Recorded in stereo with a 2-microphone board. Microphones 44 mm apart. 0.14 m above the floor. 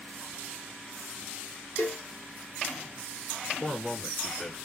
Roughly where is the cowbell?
Left.